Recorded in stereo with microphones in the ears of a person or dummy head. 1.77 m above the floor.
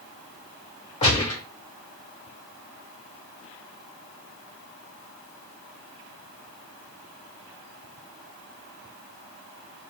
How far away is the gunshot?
About 1.2 m.